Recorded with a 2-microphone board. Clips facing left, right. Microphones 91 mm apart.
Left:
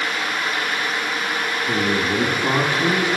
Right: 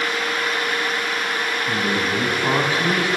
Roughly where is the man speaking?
Right.